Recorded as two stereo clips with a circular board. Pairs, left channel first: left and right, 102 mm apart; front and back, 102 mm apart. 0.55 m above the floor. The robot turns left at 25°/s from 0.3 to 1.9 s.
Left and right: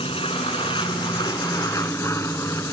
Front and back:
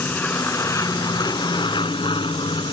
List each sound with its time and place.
0.0 s an aircraft: 70° left; by 2.7 s 30° left